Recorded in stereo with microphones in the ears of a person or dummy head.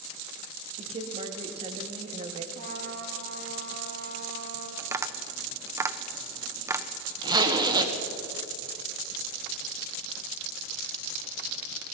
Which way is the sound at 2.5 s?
40° right (ahead or behind).